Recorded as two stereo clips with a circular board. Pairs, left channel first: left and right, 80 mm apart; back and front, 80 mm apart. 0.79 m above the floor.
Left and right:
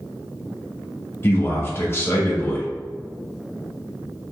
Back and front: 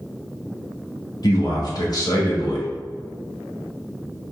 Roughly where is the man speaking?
Behind left.